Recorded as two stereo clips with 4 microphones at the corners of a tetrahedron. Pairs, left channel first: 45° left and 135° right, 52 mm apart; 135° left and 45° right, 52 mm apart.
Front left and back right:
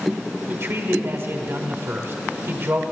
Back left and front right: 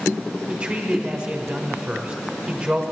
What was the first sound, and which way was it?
A man speaking, 115° right.